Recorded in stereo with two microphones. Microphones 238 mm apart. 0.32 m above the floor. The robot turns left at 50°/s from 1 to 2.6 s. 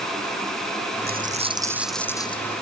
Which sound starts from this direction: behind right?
A dropped coin, at 1.1 s.